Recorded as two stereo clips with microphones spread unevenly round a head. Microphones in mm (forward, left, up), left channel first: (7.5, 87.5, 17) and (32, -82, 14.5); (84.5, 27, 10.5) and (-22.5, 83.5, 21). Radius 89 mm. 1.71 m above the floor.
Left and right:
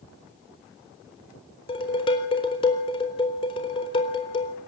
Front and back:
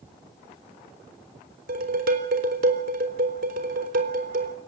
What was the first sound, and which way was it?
Dishes clattering, 165° left.